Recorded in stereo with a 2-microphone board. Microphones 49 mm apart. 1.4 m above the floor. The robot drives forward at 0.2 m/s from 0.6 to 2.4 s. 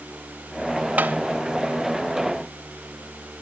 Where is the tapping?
30° right (ahead or behind), 0.6 m.